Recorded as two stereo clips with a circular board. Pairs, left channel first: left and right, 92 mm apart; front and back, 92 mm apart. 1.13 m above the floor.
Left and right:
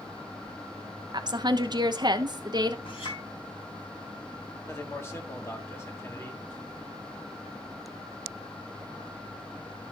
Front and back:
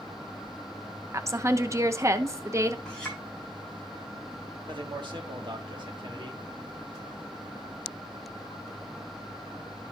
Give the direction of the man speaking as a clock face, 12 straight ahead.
7 o'clock.